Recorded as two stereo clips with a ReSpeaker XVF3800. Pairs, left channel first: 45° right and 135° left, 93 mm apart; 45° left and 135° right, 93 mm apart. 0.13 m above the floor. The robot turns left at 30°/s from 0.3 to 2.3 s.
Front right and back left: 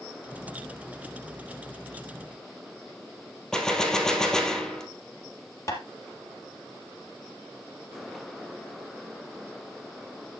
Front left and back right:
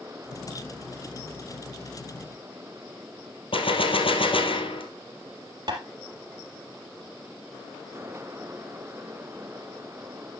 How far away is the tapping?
About 3 m.